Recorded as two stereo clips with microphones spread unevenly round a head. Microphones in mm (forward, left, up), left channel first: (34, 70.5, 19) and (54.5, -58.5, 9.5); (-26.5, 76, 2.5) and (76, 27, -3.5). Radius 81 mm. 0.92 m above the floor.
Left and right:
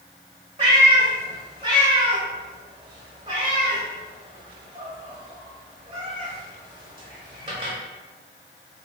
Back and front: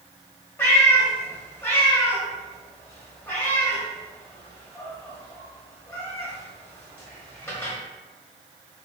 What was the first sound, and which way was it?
A cat meowing, 135° right.